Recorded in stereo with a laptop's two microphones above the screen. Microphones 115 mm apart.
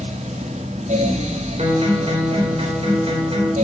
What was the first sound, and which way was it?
A fan, 80° right.